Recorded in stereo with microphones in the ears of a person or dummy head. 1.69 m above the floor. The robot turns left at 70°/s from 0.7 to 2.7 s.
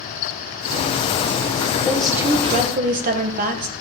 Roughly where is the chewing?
I don't hear chewing.